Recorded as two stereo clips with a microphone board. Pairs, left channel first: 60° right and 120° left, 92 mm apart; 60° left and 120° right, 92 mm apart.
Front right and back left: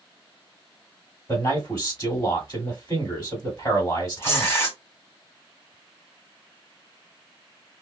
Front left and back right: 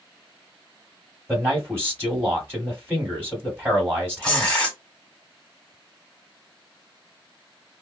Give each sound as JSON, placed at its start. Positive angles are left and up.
{"t": 1.3, "sound": "a man speaking", "azimuth_deg": -60, "distance_m": 1.8}
{"t": 4.2, "sound": "tearing paper", "azimuth_deg": -10, "distance_m": 1.4}